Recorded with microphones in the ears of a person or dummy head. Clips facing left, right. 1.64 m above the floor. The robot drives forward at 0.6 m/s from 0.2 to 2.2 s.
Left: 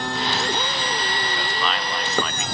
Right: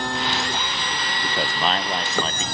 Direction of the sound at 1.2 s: 45° right (ahead or behind).